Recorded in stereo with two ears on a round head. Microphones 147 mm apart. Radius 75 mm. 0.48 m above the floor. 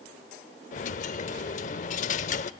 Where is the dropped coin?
45° left (ahead or behind), 0.7 m.